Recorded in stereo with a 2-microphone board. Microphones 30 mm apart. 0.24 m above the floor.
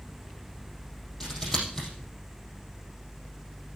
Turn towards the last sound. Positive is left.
turn(degrees=15)  # may be behind; listen again after turning